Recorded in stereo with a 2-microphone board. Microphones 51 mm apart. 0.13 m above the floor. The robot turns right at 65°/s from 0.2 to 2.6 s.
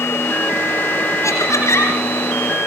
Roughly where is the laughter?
Left.